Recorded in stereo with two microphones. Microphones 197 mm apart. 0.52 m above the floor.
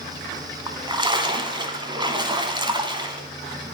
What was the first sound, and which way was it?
A splash, 25° right (ahead or behind).